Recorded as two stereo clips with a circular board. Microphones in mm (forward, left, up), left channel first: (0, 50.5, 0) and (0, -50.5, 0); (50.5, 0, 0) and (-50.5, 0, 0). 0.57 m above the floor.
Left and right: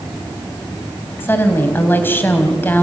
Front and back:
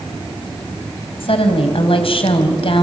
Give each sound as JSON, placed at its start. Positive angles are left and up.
{"t": 1.2, "sound": "a woman speaking", "azimuth_deg": 20, "distance_m": 3.0}